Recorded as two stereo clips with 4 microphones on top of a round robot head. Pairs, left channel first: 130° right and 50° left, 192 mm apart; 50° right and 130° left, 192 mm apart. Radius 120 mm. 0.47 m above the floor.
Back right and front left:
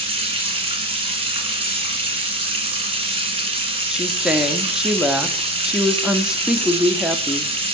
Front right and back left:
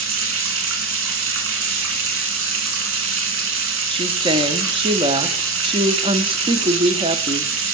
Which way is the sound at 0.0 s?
115° left.